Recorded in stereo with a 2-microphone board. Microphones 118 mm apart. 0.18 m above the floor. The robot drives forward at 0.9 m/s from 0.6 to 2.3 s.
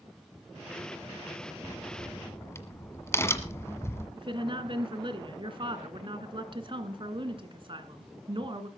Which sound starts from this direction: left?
A crack, at 1.6 s.